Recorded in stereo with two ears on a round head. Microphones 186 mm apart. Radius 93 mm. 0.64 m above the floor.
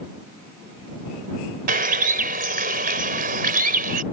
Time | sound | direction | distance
1.7 | a bird | 45° right (ahead or behind) | ?